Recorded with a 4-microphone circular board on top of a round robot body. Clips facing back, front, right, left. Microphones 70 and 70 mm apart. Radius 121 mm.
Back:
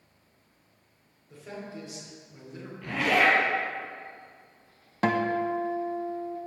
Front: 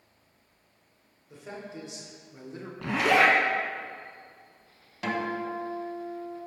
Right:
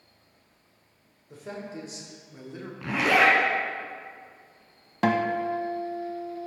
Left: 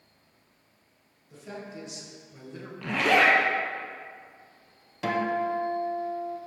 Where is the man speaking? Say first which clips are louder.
Even, right 3 dB; 70° right, 2.5 m; by 2.7 s 15° right, 1.7 m.